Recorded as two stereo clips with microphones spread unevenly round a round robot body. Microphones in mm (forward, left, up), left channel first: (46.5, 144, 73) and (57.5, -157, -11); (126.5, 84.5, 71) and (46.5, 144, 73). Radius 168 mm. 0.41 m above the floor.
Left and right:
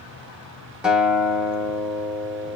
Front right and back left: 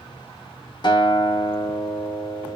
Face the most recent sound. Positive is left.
turn(degrees=-15)